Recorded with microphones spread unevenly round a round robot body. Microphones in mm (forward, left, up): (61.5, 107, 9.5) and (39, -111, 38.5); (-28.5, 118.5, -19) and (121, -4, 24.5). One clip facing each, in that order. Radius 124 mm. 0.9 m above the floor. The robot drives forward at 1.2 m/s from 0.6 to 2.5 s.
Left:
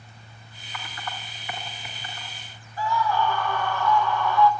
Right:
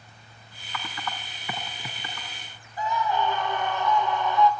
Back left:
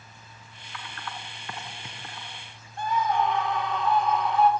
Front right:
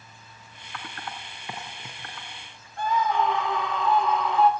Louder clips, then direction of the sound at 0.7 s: Right 2 dB, front right 1 dB; 90° right.